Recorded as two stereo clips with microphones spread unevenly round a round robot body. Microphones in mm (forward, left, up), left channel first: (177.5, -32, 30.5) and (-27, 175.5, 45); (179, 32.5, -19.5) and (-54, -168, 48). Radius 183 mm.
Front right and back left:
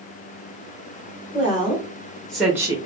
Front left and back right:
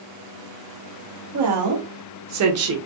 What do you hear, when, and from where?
1.3 s a woman speaking: 110° right, 1.6 m; by 2.8 s 160° right, 1.0 m